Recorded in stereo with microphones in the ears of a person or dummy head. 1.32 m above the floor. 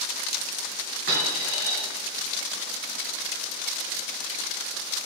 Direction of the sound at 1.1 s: 60° right (ahead or behind).